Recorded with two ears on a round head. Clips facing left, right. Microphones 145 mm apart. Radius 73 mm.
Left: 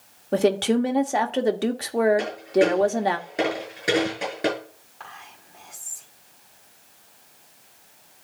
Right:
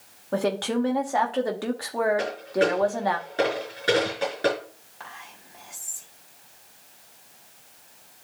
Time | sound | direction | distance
0.3 | a woman speaking | 25° left (ahead or behind) | 1.0 m
2.2 | a dropped coin | 15° left (ahead or behind) | 6 m
5.0 | whispering | 10° right (ahead or behind) | 5 m